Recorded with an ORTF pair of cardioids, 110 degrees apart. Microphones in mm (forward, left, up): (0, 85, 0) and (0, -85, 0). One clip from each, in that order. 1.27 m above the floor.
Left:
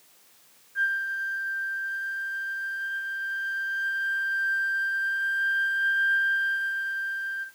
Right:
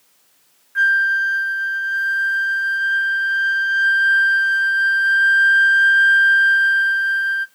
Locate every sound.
0.8 s a flute: 55° right, 0.6 m